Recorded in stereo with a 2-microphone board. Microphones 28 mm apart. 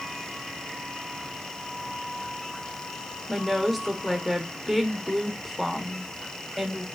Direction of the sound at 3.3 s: 5° right (ahead or behind).